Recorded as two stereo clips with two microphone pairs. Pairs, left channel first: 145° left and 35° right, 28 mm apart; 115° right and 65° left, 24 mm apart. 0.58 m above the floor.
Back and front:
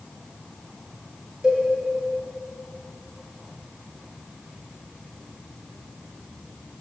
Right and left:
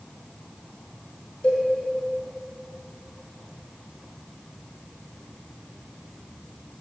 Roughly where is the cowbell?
Right.